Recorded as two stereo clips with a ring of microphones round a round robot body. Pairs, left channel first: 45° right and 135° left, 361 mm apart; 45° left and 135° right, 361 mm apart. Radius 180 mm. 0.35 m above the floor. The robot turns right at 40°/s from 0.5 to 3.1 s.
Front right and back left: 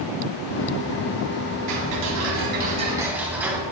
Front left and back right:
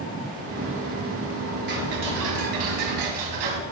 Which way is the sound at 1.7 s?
165° left.